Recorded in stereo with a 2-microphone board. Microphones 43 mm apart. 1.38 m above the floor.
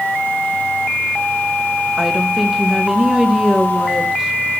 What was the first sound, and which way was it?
A woman speaking, 15° right (ahead or behind).